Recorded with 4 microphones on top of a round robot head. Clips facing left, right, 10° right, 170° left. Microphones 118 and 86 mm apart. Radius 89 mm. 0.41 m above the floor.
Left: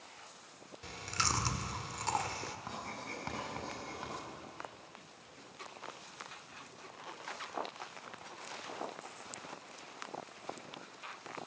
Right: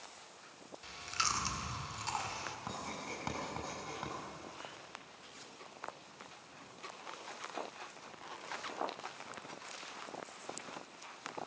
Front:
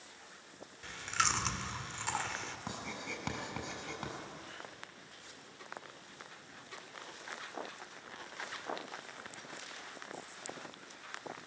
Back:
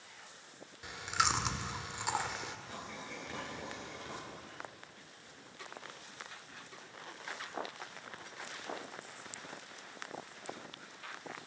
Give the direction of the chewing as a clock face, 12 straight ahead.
9 o'clock.